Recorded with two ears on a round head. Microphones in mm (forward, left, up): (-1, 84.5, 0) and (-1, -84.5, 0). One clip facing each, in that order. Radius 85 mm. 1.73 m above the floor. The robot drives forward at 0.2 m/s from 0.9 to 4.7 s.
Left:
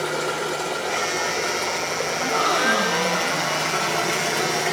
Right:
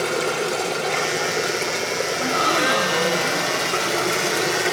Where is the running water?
35° right (ahead or behind), 1.6 m; by 4.7 s 30° right (ahead or behind), 1.8 m.